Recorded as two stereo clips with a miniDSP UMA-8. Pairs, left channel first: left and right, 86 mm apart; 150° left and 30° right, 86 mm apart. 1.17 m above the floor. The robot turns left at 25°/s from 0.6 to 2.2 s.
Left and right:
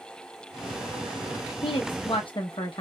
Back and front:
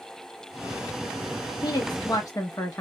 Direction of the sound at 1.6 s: 115° left.